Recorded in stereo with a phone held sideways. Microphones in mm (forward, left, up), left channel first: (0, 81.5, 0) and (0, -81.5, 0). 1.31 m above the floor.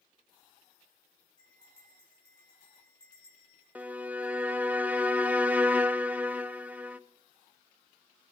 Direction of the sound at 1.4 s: 30° left (ahead or behind).